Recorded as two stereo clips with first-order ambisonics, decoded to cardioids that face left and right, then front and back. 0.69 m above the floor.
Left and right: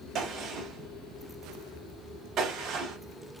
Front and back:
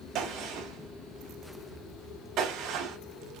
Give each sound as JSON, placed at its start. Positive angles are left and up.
{"t": 0.1, "sound": "a gunshot", "azimuth_deg": -140, "distance_m": 2.5}